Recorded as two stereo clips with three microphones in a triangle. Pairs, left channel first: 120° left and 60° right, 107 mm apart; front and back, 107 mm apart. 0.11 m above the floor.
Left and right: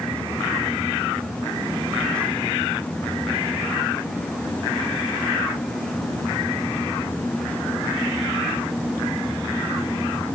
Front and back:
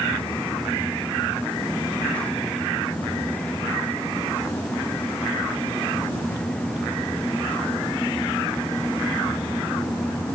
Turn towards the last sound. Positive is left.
No sound to turn to.